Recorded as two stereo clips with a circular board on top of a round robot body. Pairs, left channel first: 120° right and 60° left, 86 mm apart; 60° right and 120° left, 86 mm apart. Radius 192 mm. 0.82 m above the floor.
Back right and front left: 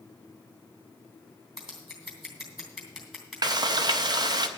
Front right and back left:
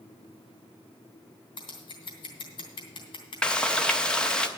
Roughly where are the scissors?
Ahead right.